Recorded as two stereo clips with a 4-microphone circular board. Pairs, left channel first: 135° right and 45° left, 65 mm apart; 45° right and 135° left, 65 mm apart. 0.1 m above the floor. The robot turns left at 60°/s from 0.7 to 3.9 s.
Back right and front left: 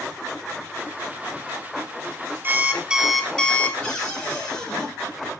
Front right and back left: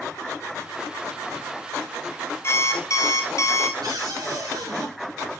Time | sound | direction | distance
2.4 | an alarm clock | 5° right | 1.0 m
3.8 | a cupboard door | 155° left | 5 m